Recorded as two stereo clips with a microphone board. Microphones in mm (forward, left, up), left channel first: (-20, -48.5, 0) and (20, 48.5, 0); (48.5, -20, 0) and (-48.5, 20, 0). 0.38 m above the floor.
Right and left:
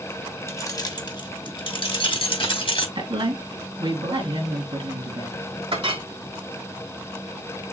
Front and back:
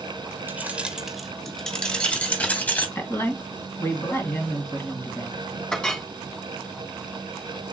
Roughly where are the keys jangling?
Behind right.